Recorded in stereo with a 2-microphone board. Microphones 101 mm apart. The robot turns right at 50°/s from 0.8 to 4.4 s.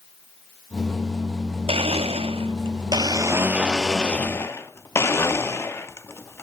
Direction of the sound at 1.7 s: 110° right.